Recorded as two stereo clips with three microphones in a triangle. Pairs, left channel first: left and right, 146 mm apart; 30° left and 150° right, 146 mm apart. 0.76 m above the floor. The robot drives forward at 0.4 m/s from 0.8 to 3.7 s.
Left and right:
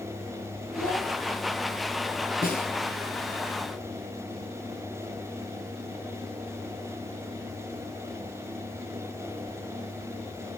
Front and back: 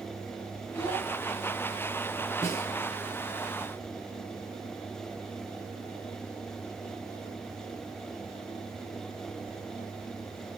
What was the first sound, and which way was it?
A child speaking, 85° left.